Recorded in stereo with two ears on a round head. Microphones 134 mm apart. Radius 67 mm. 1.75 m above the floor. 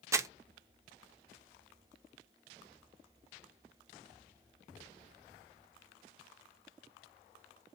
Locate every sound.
0.1 s crumpling: 20° right (ahead or behind), 0.5 m